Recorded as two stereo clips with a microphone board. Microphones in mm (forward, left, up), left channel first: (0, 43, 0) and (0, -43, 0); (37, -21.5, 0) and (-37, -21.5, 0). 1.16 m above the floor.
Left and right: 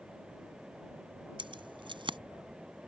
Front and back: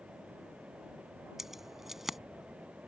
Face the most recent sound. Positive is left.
turn(degrees=-95)